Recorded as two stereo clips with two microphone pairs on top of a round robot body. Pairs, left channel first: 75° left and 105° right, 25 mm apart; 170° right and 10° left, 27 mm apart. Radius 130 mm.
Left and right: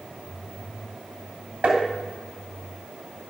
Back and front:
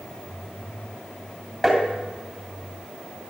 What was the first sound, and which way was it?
Tapping, 90° right.